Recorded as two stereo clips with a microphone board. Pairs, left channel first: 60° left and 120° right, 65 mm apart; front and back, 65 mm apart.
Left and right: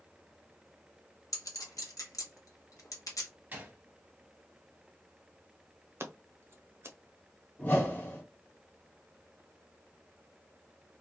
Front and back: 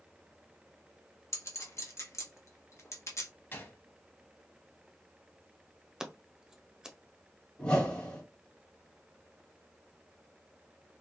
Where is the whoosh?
50° left, 1.2 m.